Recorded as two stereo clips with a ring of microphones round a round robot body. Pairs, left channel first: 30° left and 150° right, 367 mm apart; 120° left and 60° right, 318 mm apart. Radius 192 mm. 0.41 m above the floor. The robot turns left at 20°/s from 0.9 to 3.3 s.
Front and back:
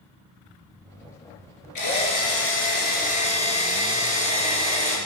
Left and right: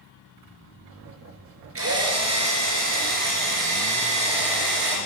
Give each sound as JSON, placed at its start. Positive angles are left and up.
{"t": 1.8, "sound": "a drill", "azimuth_deg": -10, "distance_m": 3.5}